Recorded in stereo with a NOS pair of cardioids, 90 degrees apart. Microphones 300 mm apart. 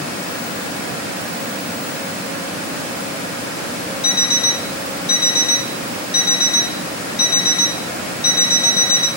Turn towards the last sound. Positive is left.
turn(degrees=35)